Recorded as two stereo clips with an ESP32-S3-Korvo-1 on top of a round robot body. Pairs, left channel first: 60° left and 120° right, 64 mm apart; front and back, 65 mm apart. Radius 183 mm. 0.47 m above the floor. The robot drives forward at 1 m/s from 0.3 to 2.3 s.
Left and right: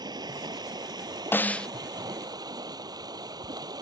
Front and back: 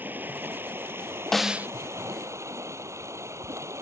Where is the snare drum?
75° left; by 1.7 s 135° left.